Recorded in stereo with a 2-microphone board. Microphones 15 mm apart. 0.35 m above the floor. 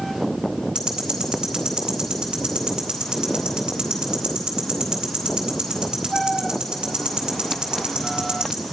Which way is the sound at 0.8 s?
65° right (ahead or behind).